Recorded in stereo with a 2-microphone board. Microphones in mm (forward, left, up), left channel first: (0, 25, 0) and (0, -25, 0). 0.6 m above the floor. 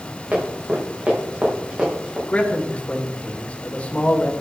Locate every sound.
0.3 s running footsteps: 35° right (ahead or behind), 6 m; by 2.2 s 20° right (ahead or behind), 5.5 m
2.3 s a man speaking: 25° left (ahead or behind), 2.5 m